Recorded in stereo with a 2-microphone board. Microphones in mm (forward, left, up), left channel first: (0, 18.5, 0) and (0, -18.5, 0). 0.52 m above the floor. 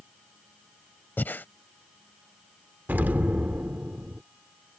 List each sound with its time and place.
1.2 s breathing: 60° left (ahead or behind)
2.9 s an explosion: 50° right (ahead or behind)